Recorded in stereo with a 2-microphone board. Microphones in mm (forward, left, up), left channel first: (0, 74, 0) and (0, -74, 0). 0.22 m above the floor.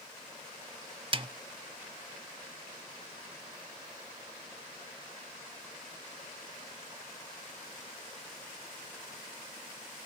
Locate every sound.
1.1 s a snare drum: 35° right (ahead or behind), 0.7 m